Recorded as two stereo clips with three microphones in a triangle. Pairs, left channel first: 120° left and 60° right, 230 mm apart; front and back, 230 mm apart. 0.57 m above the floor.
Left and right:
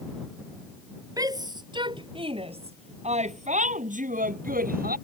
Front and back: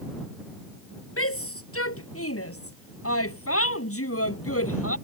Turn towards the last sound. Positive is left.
turn(degrees=-10)